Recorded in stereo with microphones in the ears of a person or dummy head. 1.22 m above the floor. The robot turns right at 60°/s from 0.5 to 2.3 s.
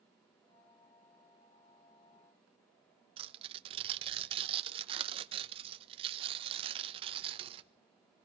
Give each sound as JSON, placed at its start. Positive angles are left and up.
{"t": 3.2, "sound": "tearing paper", "side_deg": -30, "distance_m": 1.2}